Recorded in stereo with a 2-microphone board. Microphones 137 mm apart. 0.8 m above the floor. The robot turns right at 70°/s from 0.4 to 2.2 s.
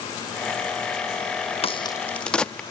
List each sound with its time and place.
1.6 s a crack: 45° left (ahead or behind), 0.7 m; by 2.6 s 5° left (ahead or behind), 0.7 m